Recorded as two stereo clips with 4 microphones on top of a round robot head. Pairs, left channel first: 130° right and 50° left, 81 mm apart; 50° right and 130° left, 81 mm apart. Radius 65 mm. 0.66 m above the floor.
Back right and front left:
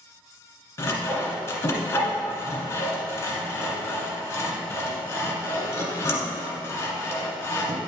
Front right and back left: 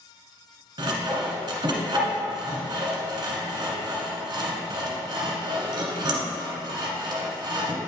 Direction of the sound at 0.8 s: 175° left.